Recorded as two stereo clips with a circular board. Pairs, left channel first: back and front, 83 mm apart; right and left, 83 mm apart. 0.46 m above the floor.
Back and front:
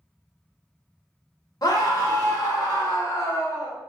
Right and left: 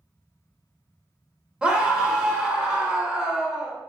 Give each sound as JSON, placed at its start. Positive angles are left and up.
{"t": 1.6, "sound": "a scream", "azimuth_deg": 165, "distance_m": 1.2}